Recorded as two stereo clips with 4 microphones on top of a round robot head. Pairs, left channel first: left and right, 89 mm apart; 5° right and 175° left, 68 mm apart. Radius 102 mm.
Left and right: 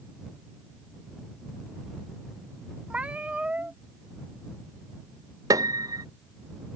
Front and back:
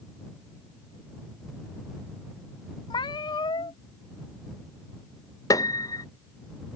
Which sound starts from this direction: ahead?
A cat meowing, at 2.9 s.